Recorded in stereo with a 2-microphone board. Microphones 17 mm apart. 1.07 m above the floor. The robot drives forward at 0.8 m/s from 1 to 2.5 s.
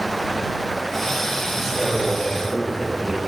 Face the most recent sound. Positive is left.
turn(degrees=-35)  # may be behind; listen again after turning